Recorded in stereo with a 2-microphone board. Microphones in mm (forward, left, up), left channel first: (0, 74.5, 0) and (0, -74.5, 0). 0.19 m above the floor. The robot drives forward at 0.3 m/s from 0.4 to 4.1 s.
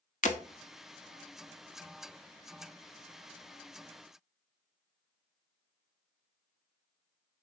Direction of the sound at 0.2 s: 55° left (ahead or behind).